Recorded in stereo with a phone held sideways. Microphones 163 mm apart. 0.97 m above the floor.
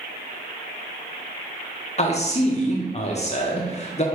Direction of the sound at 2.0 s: 40° left (ahead or behind).